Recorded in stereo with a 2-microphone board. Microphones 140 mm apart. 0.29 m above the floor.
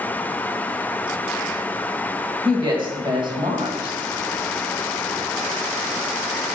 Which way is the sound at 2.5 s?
35° right (ahead or behind).